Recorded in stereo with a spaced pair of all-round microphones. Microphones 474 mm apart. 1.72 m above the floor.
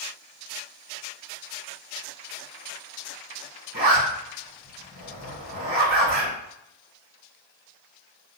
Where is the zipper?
45° left (ahead or behind), 2.0 m.